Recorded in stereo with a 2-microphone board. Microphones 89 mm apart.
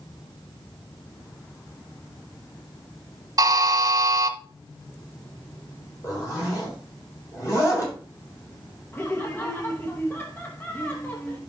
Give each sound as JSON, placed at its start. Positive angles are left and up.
{"t": 3.4, "sound": "a buzzer", "side_deg": -50, "distance_m": 1.3}
{"t": 6.0, "sound": "a zipper", "side_deg": 40, "distance_m": 4.0}
{"t": 8.9, "sound": "laughter", "side_deg": 25, "distance_m": 0.8}